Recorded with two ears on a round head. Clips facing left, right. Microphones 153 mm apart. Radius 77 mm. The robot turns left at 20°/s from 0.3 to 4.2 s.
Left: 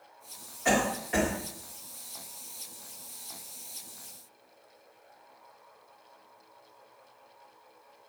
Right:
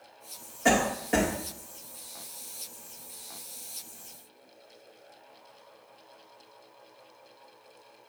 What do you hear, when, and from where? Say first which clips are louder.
0.7 s a cough: right 3 dB; 60° right (ahead or behind), 2 m; by 1.3 s 50° right (ahead or behind), 2 m